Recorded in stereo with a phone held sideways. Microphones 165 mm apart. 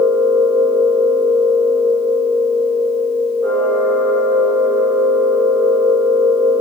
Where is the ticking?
No ticking in this recording.